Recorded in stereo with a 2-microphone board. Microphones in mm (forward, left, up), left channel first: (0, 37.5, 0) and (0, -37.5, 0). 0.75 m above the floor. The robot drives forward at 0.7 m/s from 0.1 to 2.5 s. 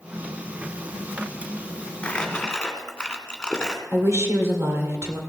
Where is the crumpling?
15° left (ahead or behind), 1.6 m; by 3.8 s 10° left (ahead or behind), 1.9 m.